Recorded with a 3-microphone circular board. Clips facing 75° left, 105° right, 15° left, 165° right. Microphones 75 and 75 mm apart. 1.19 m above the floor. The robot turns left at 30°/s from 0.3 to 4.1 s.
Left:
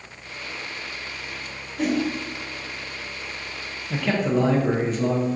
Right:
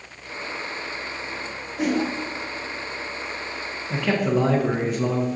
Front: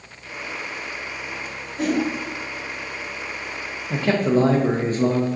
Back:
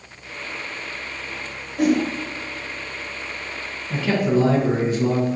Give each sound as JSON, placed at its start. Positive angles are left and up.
{"t": 1.8, "sound": "a whoosh", "azimuth_deg": -170, "distance_m": 1.0}
{"t": 3.9, "sound": "a man speaking", "azimuth_deg": -10, "distance_m": 0.5}